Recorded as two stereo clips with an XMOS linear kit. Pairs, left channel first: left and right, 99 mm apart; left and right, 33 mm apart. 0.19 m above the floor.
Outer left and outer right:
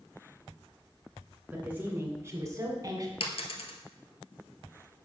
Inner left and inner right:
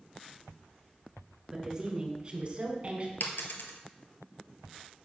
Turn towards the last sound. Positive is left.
turn(degrees=75)  # may be behind; listen again after turning